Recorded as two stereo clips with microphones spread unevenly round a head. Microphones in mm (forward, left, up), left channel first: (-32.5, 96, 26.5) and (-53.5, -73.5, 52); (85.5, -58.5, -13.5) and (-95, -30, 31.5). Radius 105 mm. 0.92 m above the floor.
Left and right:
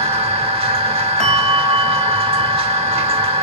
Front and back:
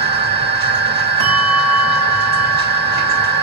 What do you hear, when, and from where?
0.0 s a machine running: 155° right, 2.0 m
1.2 s a bell: 170° left, 5 m